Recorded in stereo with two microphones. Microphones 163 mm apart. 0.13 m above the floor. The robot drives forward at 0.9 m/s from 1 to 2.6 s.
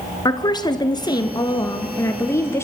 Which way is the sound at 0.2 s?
25° left (ahead or behind).